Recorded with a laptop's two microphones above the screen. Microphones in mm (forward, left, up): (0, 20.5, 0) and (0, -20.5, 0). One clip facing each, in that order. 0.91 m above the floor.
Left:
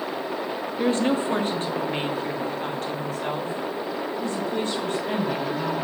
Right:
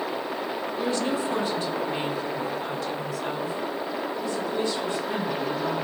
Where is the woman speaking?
30° left (ahead or behind), 1.0 m; by 5.8 s 45° left (ahead or behind), 4 m.